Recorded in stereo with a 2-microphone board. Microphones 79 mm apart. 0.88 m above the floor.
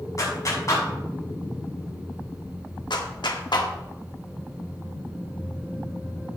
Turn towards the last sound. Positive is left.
turn(degrees=70)  # may be behind; listen again after turning